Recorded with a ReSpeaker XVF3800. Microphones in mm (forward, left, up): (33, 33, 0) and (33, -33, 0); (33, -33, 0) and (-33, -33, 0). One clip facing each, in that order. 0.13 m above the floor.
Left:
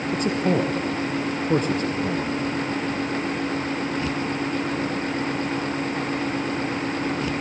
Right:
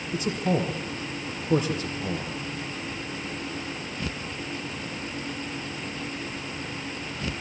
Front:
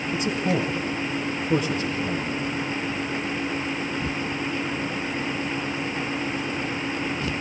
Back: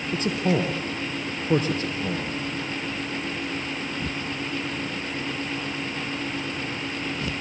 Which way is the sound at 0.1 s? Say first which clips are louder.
Left 3 dB, back 1 dB; 125° left.